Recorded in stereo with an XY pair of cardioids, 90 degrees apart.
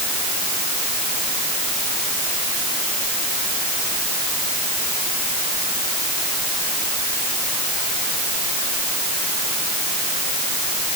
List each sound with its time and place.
Only background noise.